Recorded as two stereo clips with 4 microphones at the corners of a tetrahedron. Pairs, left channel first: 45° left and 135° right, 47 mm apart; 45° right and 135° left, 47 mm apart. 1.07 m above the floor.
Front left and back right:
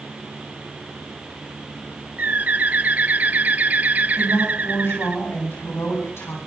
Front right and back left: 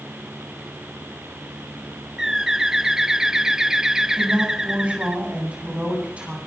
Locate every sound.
2.2 s a bird: 150° right, 0.6 m
4.2 s a woman speaking: 75° left, 9.5 m